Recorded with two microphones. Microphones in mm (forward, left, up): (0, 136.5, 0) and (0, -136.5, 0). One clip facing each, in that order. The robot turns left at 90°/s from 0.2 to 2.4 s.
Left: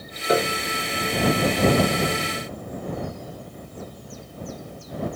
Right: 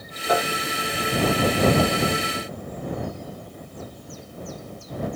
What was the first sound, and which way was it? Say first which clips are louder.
A piano: left 3 dB; 155° left.